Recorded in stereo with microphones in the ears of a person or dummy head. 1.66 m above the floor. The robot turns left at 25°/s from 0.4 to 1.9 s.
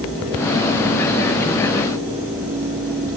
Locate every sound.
Only background noise.